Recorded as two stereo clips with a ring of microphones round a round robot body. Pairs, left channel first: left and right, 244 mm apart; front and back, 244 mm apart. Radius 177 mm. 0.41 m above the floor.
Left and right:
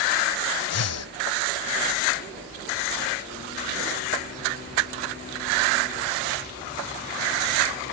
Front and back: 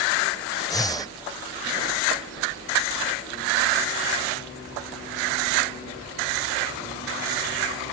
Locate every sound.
0.7 s breathing: 75° left